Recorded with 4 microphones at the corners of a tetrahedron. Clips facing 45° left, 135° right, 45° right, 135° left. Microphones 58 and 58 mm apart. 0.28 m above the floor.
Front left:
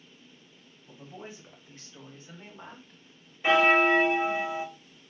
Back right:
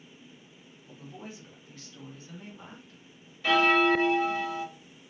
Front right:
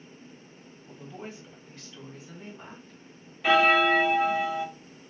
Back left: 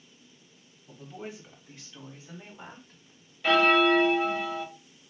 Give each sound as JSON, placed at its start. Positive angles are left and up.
{"t": 0.9, "sound": "a woman speaking", "azimuth_deg": 30, "distance_m": 1.5}
{"t": 3.4, "sound": "a bell", "azimuth_deg": 25, "distance_m": 0.6}